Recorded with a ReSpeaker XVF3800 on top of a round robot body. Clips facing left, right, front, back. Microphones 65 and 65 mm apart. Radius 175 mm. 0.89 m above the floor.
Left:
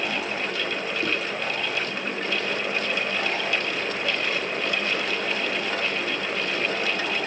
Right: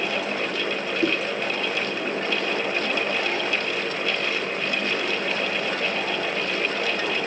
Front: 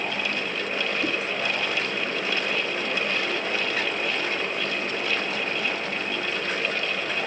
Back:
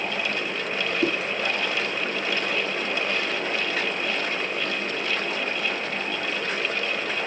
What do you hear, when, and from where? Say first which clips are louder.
1.0 s a whoosh: right 5 dB, back 6 dB; 155° right, 2.5 m